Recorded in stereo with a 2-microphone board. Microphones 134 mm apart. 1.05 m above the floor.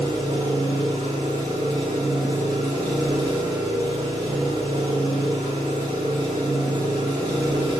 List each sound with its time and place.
0.0 s an engine running: 30° right (ahead or behind), 1.2 m